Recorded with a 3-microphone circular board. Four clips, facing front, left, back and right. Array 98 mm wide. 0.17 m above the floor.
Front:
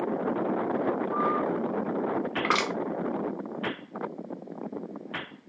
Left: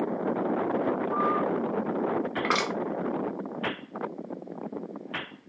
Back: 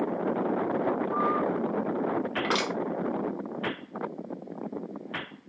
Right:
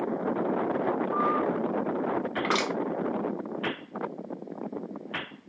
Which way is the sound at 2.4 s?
20° left.